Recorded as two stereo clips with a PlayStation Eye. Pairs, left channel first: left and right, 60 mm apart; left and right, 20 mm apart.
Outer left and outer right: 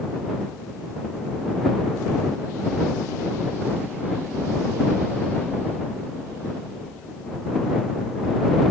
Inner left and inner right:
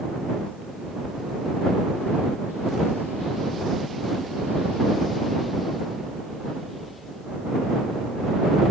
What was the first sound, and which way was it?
Only background noise.